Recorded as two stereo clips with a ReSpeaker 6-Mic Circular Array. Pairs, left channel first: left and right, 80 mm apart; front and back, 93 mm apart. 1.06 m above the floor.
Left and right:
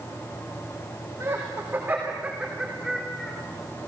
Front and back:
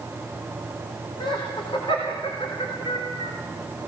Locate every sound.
1.2 s laughter: 35° right, 3.5 m; by 3.3 s 10° left, 3 m